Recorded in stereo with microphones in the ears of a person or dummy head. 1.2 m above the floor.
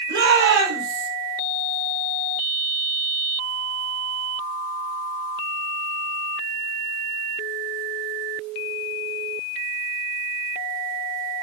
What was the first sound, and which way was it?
A shout, 60° right (ahead or behind).